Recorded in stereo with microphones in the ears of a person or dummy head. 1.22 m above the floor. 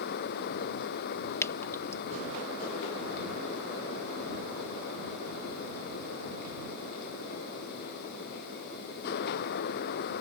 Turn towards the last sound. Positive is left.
turn(degrees=15)  # may be behind; listen again after turning